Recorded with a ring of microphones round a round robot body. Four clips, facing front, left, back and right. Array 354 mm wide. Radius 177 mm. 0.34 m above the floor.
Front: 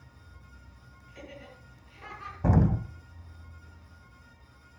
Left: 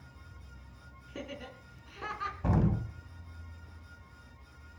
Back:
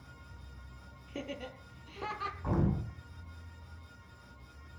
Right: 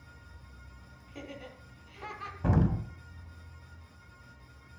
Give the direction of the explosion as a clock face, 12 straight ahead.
12 o'clock.